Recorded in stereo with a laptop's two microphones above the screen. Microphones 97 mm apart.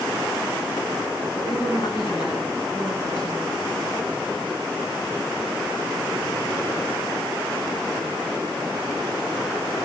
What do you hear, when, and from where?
1.4 s a woman speaking: 65° left (ahead or behind), 8 m